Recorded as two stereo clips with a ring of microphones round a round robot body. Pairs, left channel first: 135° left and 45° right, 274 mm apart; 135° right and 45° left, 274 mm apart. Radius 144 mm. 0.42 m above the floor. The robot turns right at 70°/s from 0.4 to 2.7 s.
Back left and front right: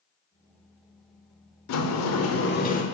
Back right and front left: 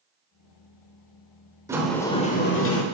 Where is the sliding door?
125° left, 0.9 m; by 2.8 s 165° right, 0.9 m.